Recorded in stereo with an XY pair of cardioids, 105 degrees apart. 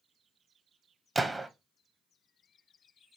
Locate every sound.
1.1 s a gunshot: 15° right, 0.6 m